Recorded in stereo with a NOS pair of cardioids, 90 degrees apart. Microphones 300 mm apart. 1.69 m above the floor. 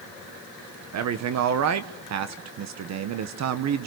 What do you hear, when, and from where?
0.9 s a man speaking: 65° right, 1.2 m